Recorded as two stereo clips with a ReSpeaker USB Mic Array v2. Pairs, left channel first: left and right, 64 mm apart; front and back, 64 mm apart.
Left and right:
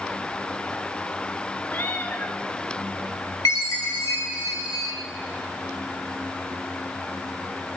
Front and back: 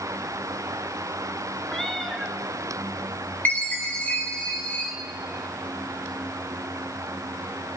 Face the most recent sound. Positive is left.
turn(degrees=60)